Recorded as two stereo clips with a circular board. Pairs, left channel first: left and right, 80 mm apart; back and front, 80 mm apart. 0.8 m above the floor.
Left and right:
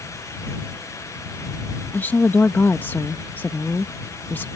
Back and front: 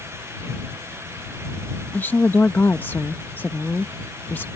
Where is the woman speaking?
135° left.